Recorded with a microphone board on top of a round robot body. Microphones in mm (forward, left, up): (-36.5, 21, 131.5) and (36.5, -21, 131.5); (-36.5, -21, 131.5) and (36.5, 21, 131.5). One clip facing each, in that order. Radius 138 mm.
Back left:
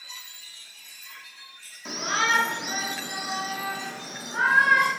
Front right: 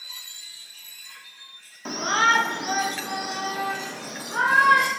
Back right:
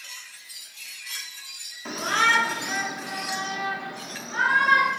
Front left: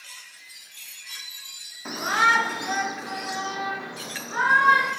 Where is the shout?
40° right, 1.3 m; by 4.9 s 25° right, 2.5 m.